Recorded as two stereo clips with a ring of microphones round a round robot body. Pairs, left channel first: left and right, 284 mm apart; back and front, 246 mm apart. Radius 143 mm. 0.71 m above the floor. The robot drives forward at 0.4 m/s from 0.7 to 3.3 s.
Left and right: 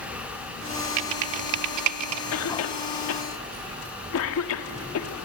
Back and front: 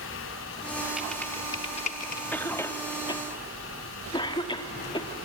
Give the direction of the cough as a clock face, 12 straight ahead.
9 o'clock.